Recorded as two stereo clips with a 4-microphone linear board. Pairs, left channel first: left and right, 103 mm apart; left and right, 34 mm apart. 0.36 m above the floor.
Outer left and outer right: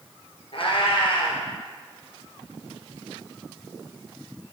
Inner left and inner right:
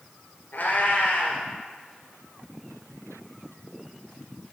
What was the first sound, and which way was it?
A cat meowing, 70° left (ahead or behind).